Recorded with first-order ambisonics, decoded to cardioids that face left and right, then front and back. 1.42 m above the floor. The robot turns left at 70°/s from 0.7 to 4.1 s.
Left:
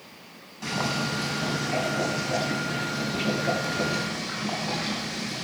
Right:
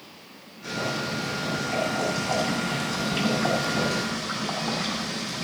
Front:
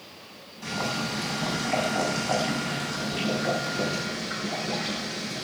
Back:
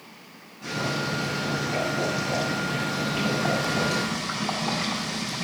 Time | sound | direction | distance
0.6 | boiling | 75° left | 8 m